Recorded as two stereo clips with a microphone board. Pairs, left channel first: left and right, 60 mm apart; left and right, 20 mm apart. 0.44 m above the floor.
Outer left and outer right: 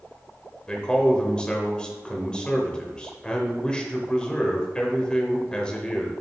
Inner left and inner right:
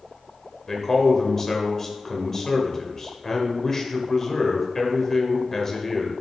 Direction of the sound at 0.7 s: 15° left (ahead or behind).